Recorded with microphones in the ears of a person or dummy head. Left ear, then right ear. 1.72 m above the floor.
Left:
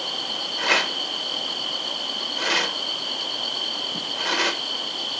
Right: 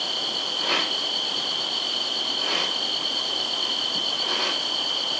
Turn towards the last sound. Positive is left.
turn(degrees=55)  # may be behind; listen again after turning